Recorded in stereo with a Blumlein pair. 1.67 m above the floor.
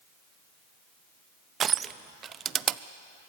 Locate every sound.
1.6 s crushing: 25° right, 0.6 m